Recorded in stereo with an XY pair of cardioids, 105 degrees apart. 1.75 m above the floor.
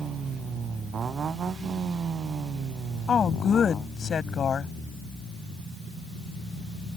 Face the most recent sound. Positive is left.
turn(degrees=45)